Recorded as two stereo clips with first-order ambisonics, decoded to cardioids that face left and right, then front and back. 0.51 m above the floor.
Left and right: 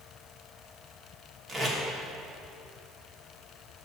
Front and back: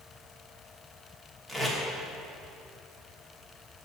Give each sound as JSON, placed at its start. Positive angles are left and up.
{"t": 1.5, "sound": "tape being pulled", "azimuth_deg": -90, "distance_m": 1.1}